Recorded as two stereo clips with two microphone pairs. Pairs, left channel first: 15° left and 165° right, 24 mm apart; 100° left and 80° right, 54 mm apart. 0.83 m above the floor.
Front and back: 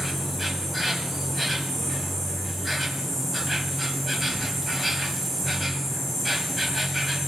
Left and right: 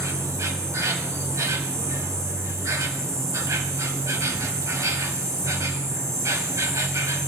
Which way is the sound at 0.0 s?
70° right.